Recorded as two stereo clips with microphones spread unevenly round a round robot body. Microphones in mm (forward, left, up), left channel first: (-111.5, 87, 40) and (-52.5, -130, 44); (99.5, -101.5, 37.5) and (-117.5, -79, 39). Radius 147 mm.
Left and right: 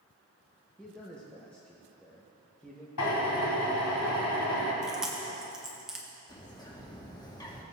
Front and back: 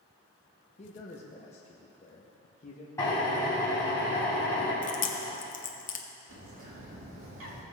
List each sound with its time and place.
0.8 s a man speaking: 25° left, 0.9 m
3.0 s a drill: 75° left, 2 m
4.8 s chewing: 15° left, 0.9 m
6.3 s a bird: 175° left, 2 m